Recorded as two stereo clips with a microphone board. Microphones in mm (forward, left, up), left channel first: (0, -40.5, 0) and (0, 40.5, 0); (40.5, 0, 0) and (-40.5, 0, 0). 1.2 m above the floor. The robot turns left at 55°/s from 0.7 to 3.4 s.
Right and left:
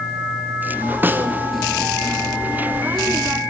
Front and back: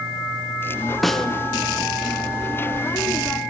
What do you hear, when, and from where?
1.0 s a snare drum: 85° left, 0.7 m; by 1.3 s 70° left, 0.7 m